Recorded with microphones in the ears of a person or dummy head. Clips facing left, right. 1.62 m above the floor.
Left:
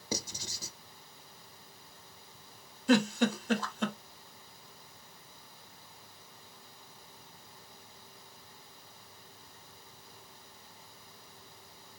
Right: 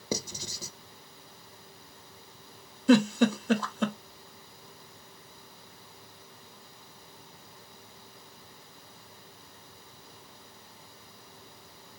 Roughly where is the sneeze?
I don't hear a sneeze.